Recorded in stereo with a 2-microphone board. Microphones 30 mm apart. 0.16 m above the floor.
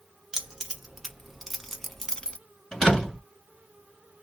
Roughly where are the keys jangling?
Centre.